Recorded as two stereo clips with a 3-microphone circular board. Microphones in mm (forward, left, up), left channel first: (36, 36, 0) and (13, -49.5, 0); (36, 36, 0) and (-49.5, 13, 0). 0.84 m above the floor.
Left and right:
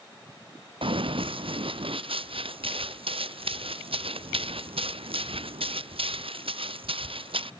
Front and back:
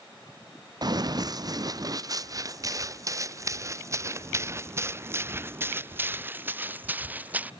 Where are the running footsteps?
125° right; by 7.5 s 90° right.